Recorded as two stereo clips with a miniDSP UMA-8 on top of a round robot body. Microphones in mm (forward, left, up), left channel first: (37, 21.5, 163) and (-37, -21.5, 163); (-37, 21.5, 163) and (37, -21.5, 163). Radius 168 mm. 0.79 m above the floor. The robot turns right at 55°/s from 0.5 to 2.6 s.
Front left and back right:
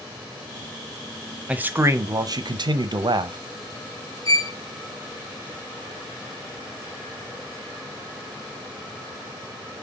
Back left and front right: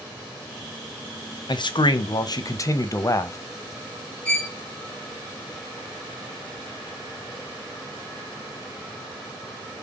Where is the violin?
75° left, 1.5 m.